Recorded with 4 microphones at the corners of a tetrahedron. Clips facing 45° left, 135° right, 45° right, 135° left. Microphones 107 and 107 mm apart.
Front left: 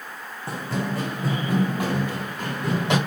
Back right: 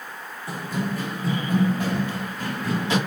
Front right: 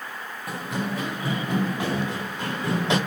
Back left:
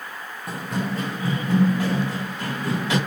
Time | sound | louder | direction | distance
0.5 | running footsteps | even, back left 2 dB | 45° left | 0.9 m